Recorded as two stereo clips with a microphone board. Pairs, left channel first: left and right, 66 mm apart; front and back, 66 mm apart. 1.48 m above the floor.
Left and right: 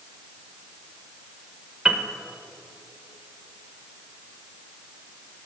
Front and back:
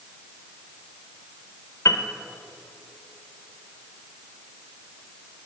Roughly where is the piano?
Ahead.